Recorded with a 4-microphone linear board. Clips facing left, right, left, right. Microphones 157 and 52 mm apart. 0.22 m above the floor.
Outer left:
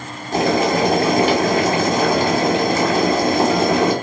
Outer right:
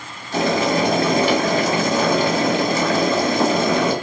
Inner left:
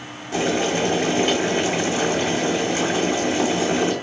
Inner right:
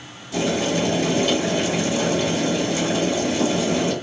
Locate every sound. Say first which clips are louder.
0.3 s boiling: outer left 2 dB, inner left 1 dB; 45° left (ahead or behind), 2 m